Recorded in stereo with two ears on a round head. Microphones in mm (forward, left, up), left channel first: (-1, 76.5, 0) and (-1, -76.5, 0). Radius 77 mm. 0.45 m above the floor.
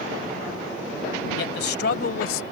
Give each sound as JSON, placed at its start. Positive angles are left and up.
{"t": 1.4, "sound": "a man speaking", "side_deg": 65}